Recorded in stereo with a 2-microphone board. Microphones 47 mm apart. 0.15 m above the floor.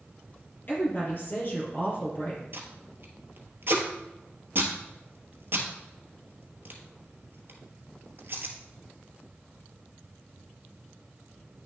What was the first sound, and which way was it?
A woman speaking, 45° left (ahead or behind).